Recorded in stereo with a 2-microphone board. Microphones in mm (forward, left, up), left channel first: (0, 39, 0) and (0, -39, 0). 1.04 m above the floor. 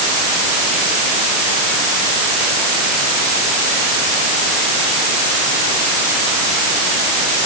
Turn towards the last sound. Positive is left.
No sound to turn to.